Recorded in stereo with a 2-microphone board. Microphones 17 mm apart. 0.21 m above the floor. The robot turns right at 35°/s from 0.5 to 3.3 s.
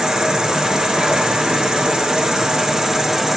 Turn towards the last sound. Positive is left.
turn(degrees=-25)